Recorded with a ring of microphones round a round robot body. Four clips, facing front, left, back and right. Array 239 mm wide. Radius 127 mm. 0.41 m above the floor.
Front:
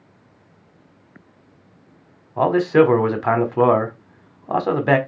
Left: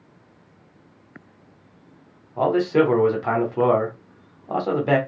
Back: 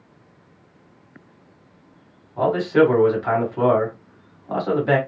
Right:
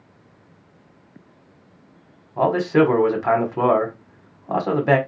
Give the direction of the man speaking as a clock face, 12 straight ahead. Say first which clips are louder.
Right 1 dB, front 2 dB; 12 o'clock.